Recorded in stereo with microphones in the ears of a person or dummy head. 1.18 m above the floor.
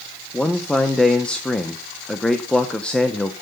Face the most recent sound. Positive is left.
turn(degrees=10)  # may be behind; listen again after turning